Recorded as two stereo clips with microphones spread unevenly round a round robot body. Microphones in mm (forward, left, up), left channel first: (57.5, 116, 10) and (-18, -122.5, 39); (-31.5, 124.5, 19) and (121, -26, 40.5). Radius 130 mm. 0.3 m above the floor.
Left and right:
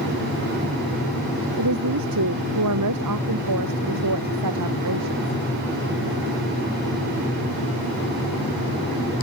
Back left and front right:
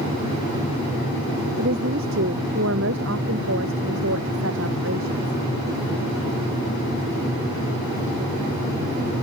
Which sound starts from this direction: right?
A woman speaking, at 1.6 s.